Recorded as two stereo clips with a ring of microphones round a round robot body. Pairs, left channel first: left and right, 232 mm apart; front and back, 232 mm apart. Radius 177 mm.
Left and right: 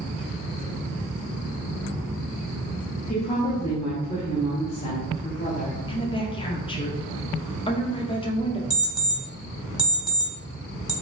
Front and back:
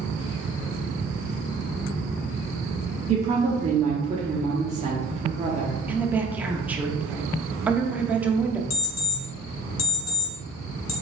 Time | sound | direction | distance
3.1 | a woman speaking | 135° left | 1.0 m
5.9 | a woman speaking | 105° left | 0.7 m
8.7 | an alarm clock | 15° right | 1.9 m